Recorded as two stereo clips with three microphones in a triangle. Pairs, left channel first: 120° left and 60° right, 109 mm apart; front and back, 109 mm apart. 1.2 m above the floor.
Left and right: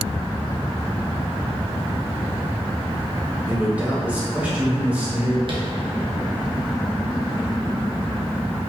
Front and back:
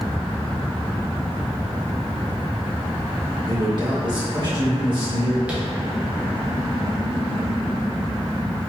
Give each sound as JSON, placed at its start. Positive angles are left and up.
{"t": 3.5, "sound": "a man speaking", "azimuth_deg": -135, "distance_m": 1.5}
{"t": 5.5, "sound": "tapping", "azimuth_deg": -100, "distance_m": 0.8}